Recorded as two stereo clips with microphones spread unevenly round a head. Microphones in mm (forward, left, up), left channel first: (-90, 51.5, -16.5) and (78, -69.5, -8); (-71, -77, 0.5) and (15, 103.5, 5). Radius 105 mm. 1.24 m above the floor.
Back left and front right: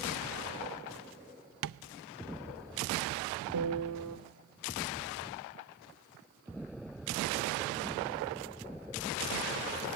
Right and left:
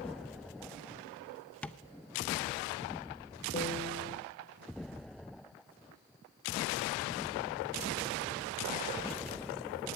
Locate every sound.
1.6 s tapping: 30° right, 0.6 m
3.5 s a piano: 50° right, 1.7 m